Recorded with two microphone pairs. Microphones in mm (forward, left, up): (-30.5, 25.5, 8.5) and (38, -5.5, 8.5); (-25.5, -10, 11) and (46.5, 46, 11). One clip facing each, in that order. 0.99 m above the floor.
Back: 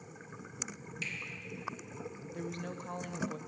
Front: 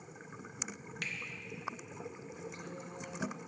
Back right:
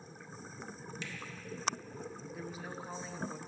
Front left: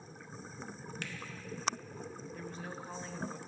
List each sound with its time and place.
1.0 s a finger snap: 5° left, 0.7 m
2.3 s a woman speaking: 130° left, 0.5 m